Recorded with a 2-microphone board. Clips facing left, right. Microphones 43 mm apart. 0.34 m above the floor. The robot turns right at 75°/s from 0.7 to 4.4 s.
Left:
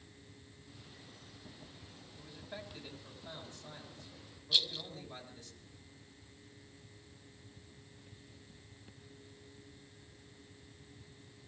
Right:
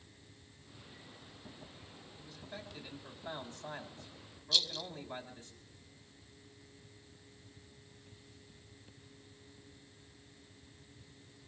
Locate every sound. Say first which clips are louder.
2.2 s a man speaking: left 1 dB; 145° left, 3 m; by 5.5 s 50° right, 3 m
4.5 s a rattle: even; 20° left (ahead or behind), 0.7 m